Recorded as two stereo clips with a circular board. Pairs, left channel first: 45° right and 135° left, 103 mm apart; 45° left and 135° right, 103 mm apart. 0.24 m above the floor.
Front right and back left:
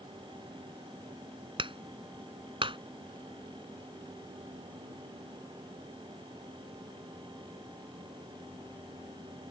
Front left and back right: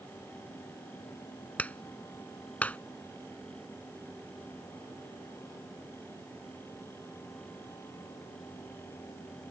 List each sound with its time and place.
1.6 s a clap: 120° left